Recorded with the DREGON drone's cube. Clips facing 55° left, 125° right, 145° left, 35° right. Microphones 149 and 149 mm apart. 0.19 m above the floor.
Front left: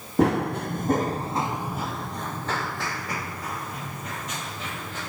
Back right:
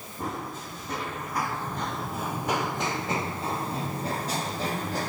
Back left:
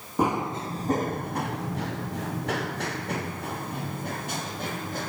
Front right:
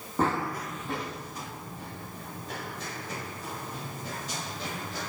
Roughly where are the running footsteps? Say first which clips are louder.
Front left 13 dB, back left 3 dB; left.